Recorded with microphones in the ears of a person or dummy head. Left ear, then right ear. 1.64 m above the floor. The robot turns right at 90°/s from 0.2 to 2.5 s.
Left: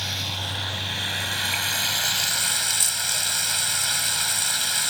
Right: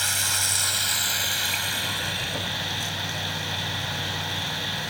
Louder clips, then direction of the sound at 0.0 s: Right 3 dB; 130° right.